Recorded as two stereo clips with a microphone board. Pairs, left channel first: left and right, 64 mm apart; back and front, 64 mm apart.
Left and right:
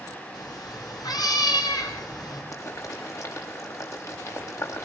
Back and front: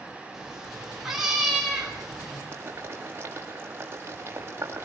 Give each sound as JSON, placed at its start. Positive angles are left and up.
{"t": 0.3, "sound": "a cat meowing", "azimuth_deg": 85, "distance_m": 9.5}
{"t": 2.5, "sound": "boiling", "azimuth_deg": 55, "distance_m": 7.0}